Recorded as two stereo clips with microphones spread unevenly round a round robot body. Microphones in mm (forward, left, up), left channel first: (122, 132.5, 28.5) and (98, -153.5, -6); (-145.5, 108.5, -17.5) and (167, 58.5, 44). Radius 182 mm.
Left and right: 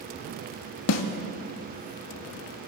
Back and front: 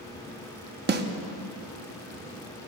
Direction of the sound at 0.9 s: 50° left.